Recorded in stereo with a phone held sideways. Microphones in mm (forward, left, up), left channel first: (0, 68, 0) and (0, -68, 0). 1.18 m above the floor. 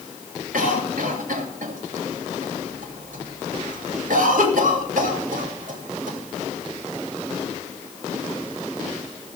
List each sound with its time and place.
0.5 s a cough: 70° right (ahead or behind), 2.5 m